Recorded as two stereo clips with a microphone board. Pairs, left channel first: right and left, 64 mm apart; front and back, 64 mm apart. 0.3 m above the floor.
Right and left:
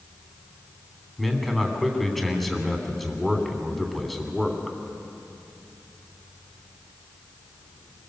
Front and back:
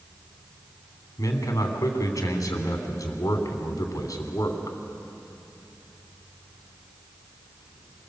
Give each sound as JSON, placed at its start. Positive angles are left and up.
{"t": 1.2, "sound": "a man speaking", "azimuth_deg": 0, "distance_m": 3.0}